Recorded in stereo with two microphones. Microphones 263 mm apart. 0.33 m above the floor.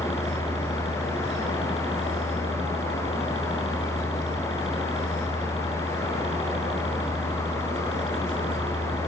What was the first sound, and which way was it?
A helicopter, 20° left (ahead or behind).